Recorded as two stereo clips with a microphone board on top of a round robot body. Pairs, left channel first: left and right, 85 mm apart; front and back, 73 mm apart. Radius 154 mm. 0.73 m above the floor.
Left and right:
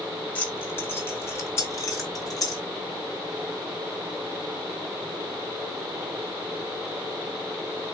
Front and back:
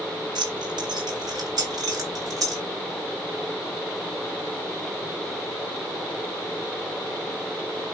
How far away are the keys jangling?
About 2 m.